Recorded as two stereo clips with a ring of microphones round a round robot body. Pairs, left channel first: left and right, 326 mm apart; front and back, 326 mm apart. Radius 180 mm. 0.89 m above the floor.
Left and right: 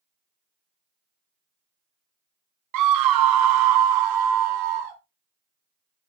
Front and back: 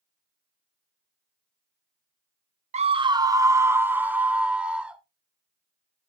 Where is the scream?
110° right, 0.5 m; by 5.0 s 95° right, 1.9 m.